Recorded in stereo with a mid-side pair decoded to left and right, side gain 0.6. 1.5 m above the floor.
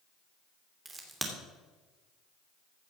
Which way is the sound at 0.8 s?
15° right.